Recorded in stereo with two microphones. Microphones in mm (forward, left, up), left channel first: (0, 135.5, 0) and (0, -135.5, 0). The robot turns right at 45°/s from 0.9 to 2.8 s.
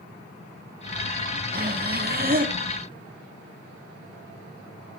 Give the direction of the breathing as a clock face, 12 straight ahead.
4 o'clock.